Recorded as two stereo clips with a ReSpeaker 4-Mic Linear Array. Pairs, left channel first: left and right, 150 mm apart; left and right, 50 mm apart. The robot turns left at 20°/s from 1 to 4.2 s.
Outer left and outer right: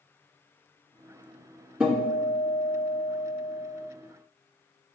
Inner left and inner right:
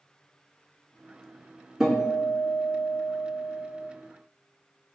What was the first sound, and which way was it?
A guitar, 10° right.